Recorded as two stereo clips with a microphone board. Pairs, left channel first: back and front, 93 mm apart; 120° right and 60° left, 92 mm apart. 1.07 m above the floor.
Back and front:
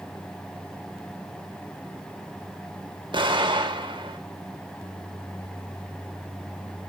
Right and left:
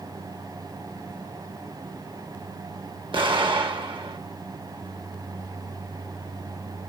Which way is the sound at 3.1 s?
35° left.